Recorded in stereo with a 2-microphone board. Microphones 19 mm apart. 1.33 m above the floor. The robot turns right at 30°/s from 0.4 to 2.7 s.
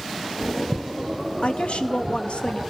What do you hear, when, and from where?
1.4 s a woman speaking: 75° left, 2.5 m; by 2.6 s 110° left, 2.5 m